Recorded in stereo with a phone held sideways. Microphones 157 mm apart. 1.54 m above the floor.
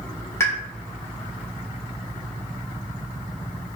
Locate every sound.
0.4 s a pop: 15° left (ahead or behind), 3 m